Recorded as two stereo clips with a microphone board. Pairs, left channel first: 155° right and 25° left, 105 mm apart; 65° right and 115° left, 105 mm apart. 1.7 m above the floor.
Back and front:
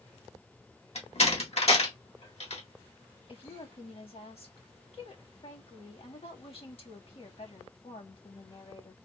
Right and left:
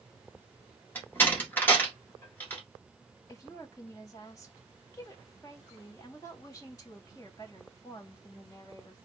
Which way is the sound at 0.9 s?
140° right.